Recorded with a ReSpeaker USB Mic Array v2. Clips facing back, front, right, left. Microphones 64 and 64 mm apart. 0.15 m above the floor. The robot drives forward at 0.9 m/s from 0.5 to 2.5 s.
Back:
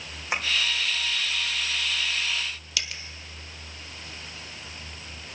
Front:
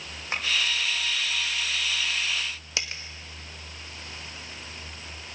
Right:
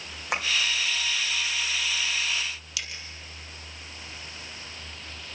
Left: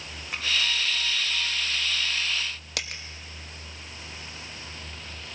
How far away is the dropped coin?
About 1.2 m.